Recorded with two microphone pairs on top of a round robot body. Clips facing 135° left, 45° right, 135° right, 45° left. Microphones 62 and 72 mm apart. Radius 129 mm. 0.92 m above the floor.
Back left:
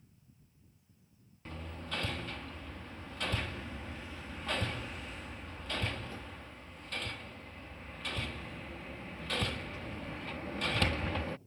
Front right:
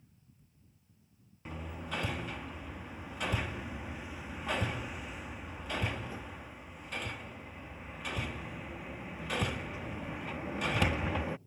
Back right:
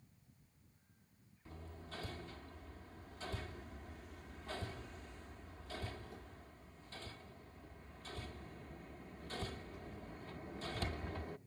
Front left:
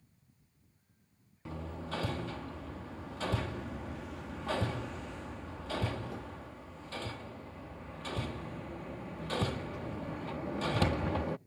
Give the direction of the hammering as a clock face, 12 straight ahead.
11 o'clock.